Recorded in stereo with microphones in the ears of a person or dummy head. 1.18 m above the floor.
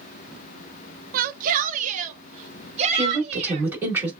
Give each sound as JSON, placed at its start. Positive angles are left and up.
{"t": 1.1, "sound": "a shout", "side_deg": -50, "distance_m": 0.7}
{"t": 2.9, "sound": "a woman speaking", "side_deg": -15, "distance_m": 3.0}